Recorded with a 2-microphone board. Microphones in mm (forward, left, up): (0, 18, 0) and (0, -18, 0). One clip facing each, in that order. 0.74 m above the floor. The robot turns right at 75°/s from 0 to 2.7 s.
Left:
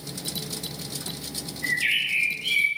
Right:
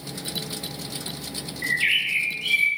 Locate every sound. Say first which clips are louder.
1.6 s a bird: right 2 dB; 100° right, 3 m; by 2.7 s 20° right, 3 m